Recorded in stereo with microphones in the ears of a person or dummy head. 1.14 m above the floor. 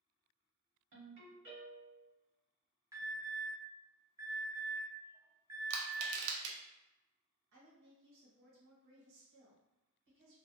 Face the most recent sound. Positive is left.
turn(degrees=-65)  # may be behind; listen again after turning